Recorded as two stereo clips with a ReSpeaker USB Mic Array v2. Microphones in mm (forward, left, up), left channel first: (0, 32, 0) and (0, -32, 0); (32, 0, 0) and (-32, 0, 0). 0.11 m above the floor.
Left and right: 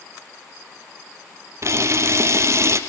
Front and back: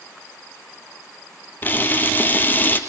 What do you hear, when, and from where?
1.6 s a camera shutter: 55° right, 2 m